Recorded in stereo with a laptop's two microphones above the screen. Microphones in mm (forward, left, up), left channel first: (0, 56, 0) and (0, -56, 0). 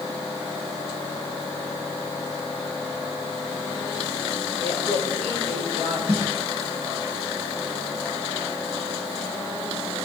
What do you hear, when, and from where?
4.6 s a woman speaking: 75° right (ahead or behind), 4 m
6.1 s a snare drum: 80° right, 3 m